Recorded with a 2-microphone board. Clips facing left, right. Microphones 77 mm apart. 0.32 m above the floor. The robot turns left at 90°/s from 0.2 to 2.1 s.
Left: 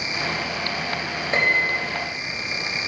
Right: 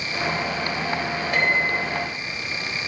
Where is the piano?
30° left (ahead or behind), 1.6 m; by 1.8 s 15° left (ahead or behind), 1.6 m.